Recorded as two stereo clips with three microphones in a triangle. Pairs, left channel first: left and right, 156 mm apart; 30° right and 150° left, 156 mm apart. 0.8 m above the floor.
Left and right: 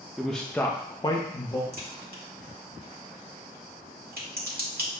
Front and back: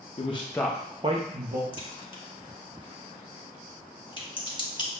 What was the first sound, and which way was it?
A man speaking, 5° right.